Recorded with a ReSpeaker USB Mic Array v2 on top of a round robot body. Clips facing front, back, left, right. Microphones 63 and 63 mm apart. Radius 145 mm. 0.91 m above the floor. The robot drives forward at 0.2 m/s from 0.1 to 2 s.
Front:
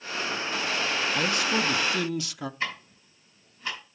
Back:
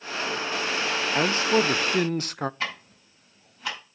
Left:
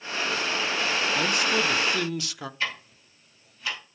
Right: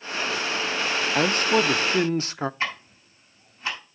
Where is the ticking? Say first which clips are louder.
Back 1 dB, right 2 dB; 155° right, 5.5 m.